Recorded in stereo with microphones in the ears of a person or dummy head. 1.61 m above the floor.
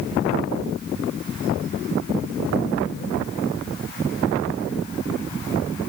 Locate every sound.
Only background noise.